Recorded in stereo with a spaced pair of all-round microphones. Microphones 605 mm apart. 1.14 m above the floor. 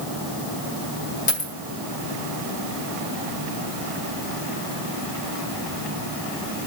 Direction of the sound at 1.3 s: 70° left (ahead or behind).